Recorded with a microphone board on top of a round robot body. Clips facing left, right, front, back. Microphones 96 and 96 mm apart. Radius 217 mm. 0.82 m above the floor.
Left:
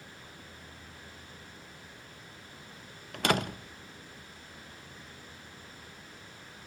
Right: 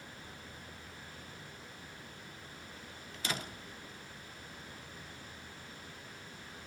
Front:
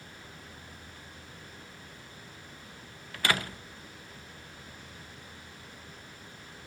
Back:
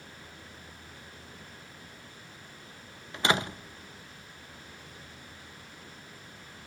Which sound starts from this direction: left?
A door slam, at 3.1 s.